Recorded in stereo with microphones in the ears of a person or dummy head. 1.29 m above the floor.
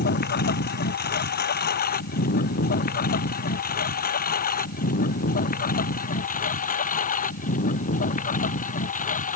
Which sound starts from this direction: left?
A lawn mower, at 0.0 s.